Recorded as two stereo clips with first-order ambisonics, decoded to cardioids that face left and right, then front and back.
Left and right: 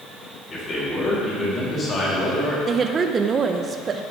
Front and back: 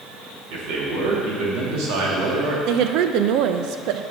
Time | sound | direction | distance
0.5 | a man speaking | 155° left | 2.5 m
2.7 | a woman speaking | 155° right | 0.6 m